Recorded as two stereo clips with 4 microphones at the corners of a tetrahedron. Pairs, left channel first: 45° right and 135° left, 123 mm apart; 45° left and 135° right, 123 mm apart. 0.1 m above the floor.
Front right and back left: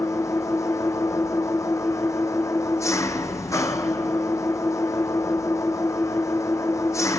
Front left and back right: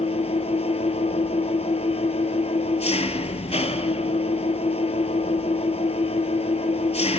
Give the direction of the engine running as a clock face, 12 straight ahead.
11 o'clock.